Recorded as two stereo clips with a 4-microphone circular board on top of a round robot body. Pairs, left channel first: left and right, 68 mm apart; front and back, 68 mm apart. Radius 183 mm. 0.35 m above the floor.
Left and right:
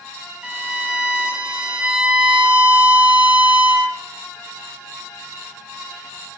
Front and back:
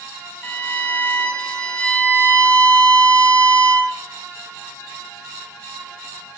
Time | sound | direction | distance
0.4 | a violin | 35° right | 1.5 m